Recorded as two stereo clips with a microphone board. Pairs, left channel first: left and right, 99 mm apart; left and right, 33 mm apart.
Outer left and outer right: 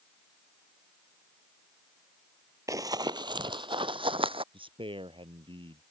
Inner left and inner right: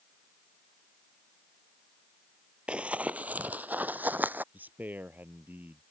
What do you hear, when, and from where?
2.7 s running footsteps: 35° right (ahead or behind); by 4.4 s 65° right (ahead or behind)
4.5 s a man speaking: 60° right (ahead or behind)